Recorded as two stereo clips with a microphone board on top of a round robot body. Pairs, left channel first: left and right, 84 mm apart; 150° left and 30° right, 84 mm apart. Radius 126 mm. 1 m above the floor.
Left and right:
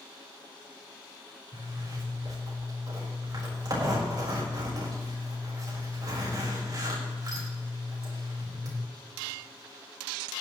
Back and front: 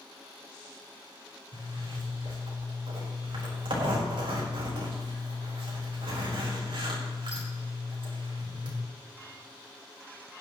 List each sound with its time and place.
1.5 s a zipper: 45° right, 4 m